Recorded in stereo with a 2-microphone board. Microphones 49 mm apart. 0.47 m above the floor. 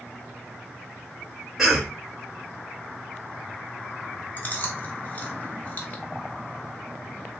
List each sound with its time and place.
1.6 s a cough: centre (ahead or behind), 1.4 m
4.4 s chewing: 35° left (ahead or behind), 0.8 m